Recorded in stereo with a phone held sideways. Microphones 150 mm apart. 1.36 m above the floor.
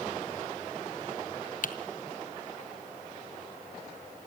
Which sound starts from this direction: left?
Typing on a keyboard, at 1.6 s.